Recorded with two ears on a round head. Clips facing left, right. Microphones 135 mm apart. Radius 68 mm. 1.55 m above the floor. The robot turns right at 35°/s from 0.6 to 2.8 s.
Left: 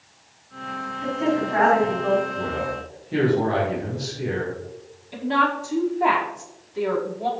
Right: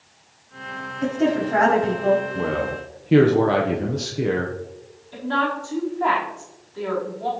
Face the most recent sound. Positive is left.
turn(degrees=20)  # may be behind; listen again after turning